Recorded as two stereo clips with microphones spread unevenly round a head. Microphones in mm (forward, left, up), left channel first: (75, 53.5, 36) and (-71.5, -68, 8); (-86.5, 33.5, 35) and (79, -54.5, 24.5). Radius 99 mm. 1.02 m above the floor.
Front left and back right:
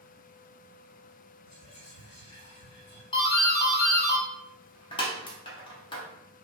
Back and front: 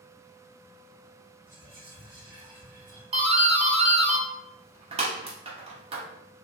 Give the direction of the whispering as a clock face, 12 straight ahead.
11 o'clock.